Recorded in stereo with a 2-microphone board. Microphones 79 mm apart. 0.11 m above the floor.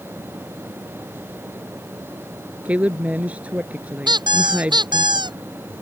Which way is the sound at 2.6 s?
20° right (ahead or behind).